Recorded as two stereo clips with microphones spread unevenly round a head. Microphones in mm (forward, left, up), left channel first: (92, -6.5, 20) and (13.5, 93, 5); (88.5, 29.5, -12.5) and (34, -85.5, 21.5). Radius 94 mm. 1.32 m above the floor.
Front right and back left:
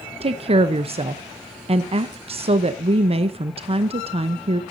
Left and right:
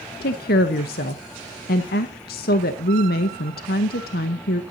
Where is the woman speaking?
85° left, 0.9 m.